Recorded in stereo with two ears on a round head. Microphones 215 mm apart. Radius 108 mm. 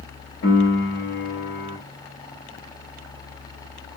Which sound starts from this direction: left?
A piano, at 0.4 s.